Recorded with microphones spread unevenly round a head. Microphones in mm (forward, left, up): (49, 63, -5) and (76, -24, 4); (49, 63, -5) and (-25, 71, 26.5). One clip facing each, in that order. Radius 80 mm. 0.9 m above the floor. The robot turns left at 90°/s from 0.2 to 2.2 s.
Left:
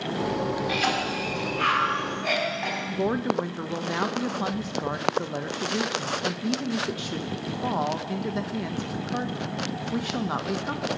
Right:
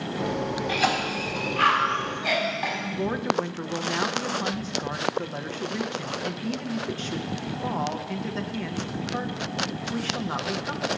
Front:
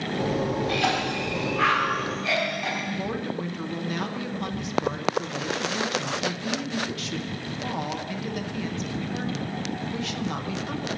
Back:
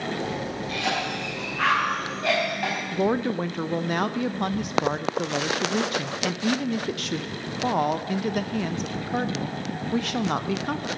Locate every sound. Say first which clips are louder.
0.7 s a cough: right 1 dB, front 3 dB; 20° right, 5.5 m; by 2.8 s 155° right, 5.5 m
2.9 s a woman speaking: left 2 dB, back 6 dB; 150° left, 0.6 m